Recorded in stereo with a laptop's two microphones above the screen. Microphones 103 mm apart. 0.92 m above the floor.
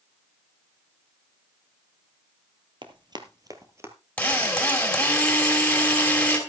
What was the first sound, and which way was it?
Running footsteps, 50° right (ahead or behind).